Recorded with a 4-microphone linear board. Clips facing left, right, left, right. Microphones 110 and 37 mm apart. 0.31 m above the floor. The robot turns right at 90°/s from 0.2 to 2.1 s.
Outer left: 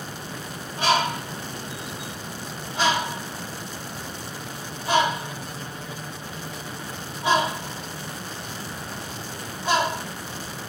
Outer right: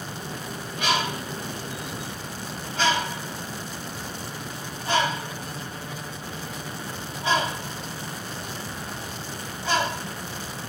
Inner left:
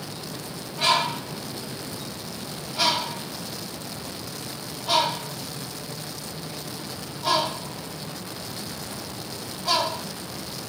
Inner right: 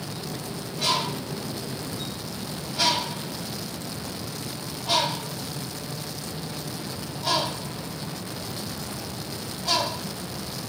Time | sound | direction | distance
0.8 | a bird | 35° left (ahead or behind) | 1.0 m